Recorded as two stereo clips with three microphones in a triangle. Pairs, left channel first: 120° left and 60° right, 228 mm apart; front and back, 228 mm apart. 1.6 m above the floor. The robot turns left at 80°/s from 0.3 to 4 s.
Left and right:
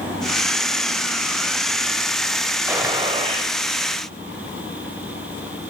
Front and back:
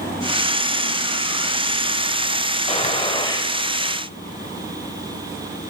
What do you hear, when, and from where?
2.7 s a gunshot: 10° left, 1.5 m; by 3.5 s 60° right, 1.5 m